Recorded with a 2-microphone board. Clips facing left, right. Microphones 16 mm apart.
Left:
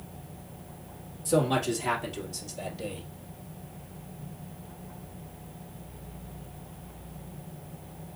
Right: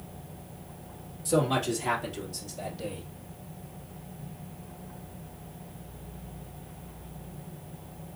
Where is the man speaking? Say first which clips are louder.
Left 1 dB; 5° right (ahead or behind), 2.5 m; by 3.1 s 20° left (ahead or behind), 2.5 m.